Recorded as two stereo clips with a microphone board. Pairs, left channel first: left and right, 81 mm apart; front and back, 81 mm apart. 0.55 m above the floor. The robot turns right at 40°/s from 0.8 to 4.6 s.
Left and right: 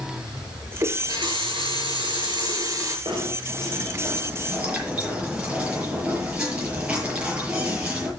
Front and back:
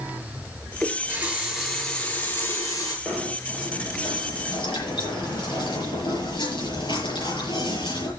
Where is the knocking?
75° right, 7 m; by 8.1 s 15° right, 7 m.